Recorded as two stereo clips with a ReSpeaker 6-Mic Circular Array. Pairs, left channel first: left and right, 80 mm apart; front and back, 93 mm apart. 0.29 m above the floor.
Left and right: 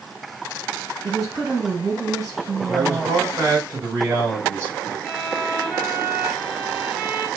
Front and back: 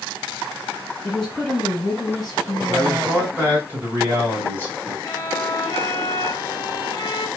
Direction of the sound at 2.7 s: 125° right.